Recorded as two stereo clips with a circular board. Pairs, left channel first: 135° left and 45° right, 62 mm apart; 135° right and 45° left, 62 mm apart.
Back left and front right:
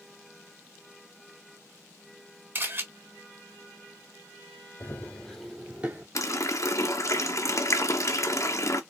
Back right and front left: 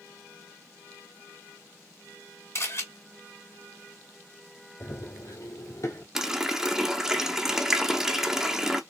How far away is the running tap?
About 0.7 m.